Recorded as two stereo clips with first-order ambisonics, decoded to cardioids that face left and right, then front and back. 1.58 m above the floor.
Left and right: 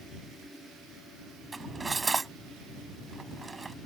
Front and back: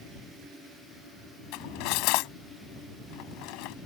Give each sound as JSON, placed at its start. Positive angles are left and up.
{"t": 1.5, "sound": "cutlery clinking", "azimuth_deg": -15}